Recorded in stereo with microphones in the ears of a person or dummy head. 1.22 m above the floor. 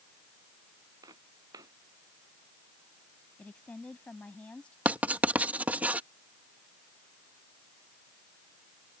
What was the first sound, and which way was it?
Footsteps, 25° right (ahead or behind).